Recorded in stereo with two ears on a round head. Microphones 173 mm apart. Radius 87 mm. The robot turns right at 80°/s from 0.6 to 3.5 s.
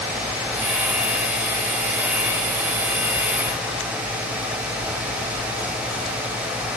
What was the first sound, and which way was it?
Only background noise.